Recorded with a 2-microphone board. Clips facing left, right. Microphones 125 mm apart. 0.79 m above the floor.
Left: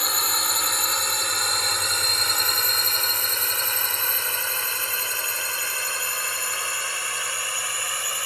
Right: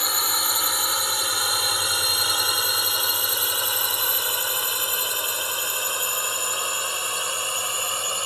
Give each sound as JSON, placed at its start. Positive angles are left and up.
{"t": 0.0, "sound": "a drone", "side_deg": 0}